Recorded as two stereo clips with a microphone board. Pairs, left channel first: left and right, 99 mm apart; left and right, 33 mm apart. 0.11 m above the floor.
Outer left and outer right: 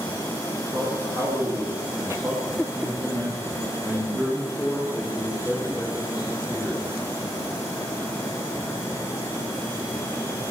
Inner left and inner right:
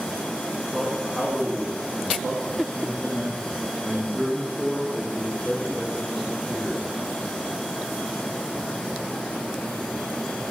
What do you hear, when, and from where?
0.7 s a man speaking: 35° right (ahead or behind), 7 m; by 6.9 s 5° right (ahead or behind), 4.5 m